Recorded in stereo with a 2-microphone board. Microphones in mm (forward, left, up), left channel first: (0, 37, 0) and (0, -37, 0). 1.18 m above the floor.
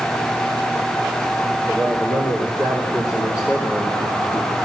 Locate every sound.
1.7 s a man speaking: 55° left (ahead or behind), 4 m; by 4.5 s 40° left (ahead or behind), 2.5 m